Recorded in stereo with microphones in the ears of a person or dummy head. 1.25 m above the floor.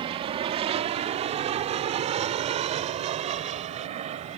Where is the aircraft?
30° right (ahead or behind); by 4.4 s 35° right (ahead or behind).